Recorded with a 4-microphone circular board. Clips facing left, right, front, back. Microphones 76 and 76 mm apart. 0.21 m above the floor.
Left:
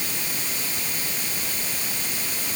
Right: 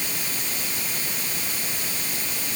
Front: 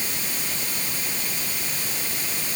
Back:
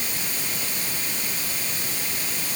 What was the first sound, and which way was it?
Only background noise.